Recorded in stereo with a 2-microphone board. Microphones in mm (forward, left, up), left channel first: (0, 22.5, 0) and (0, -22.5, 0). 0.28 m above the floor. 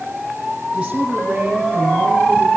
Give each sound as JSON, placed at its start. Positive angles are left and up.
{"t": 0.7, "sound": "a woman speaking", "side_deg": -25, "distance_m": 5.0}